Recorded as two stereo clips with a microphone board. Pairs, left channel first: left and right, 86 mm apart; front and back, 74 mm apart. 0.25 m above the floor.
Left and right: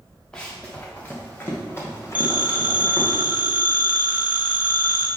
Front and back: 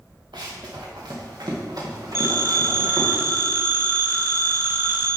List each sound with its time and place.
0.3 s running footsteps: 170° left, 1.7 m; by 3.1 s 145° left, 3 m
2.1 s a phone ringing: 155° right, 1.2 m